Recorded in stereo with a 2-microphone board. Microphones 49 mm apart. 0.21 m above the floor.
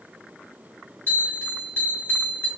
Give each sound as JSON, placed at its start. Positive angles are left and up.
{"t": 1.1, "sound": "a bell", "side_deg": 65, "distance_m": 2.5}